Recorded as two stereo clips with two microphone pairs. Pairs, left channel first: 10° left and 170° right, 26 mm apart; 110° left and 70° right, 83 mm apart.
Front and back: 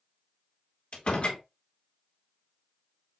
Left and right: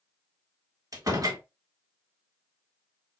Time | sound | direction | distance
0.9 | a door slam | 25° right | 1.6 m